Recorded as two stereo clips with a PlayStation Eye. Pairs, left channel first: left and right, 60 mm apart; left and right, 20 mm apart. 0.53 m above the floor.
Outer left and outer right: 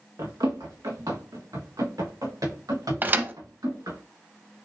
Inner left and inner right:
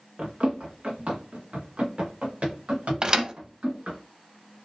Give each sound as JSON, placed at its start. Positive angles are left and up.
{"t": 0.2, "sound": "running footsteps", "side_deg": -75, "distance_m": 2.0}
{"t": 3.0, "sound": "a thud", "side_deg": -30, "distance_m": 0.6}